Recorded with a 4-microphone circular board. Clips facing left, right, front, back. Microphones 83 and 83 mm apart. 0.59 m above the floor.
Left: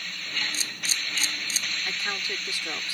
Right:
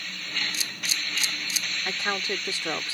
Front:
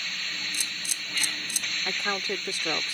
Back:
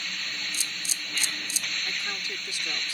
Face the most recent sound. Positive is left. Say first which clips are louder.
# right 6 dB, front 6 dB
turn(degrees=-30)